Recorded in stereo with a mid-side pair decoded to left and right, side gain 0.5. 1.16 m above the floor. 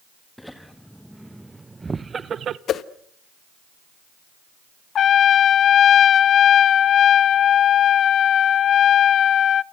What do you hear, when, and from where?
0.4 s laughter: 10° left, 2 m; by 2.6 s 65° right, 0.9 m
2.7 s a whoosh: 60° left, 1.1 m
5.0 s a trumpet: 55° left, 0.5 m